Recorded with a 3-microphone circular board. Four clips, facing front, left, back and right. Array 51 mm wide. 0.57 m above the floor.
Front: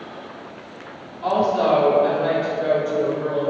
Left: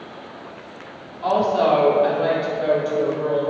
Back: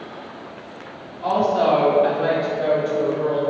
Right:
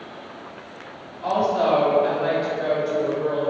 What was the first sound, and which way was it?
A woman speaking, 75° left.